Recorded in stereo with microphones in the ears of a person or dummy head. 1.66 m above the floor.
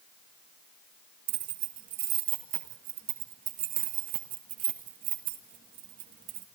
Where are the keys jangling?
50° right (ahead or behind), 1.8 m.